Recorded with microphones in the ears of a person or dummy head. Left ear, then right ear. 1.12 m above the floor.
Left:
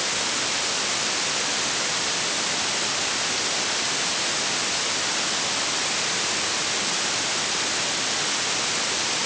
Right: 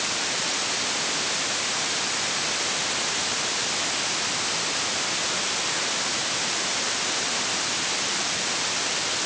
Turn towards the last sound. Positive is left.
No sound to turn to.